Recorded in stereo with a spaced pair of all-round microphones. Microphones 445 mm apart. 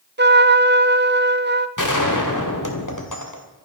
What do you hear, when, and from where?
0.2 s a trumpet: 25° right (ahead or behind), 0.7 m
1.8 s a gunshot: 45° left (ahead or behind), 2 m